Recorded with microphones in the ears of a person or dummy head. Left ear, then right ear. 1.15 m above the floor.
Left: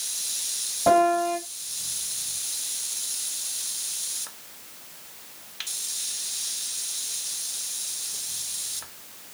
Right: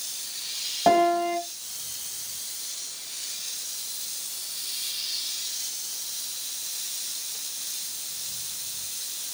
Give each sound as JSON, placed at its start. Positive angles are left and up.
{"t": 0.9, "sound": "a piano", "side_deg": -55, "distance_m": 1.7}